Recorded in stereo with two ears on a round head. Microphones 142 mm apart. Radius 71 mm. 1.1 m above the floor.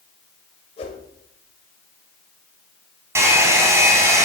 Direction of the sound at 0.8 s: 40° left (ahead or behind).